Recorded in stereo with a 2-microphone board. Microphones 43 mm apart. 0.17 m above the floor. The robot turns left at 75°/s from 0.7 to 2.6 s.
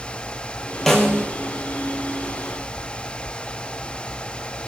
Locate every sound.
0.9 s a snare drum: 5° left (ahead or behind), 2.5 m; by 1.3 s 35° left (ahead or behind), 2.5 m